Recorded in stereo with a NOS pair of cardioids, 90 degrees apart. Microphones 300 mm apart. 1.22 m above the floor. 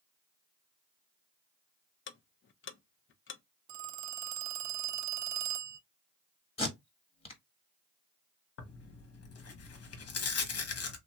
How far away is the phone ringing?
About 0.5 m.